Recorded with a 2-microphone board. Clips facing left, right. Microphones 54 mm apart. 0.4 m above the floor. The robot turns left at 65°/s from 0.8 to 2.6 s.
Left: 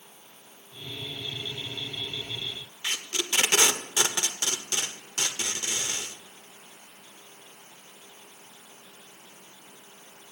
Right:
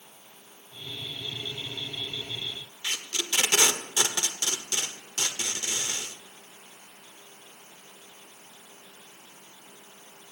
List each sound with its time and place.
2.8 s tape being pulled: 25° left (ahead or behind), 0.5 m